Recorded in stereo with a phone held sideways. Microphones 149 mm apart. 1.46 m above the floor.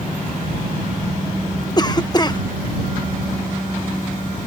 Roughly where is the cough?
Left.